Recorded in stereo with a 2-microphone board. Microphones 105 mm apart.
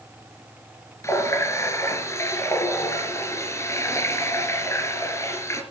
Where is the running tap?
30° left (ahead or behind), 3 m.